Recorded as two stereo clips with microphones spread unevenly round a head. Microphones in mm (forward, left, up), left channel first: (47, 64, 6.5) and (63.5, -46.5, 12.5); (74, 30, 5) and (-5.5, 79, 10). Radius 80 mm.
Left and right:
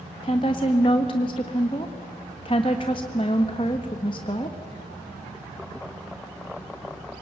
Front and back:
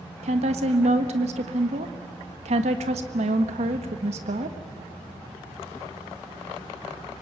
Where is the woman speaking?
160° left, 1.5 m.